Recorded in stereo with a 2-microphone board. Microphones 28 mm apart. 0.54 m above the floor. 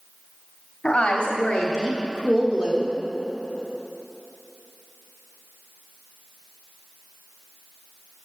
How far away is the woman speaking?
About 1.0 m.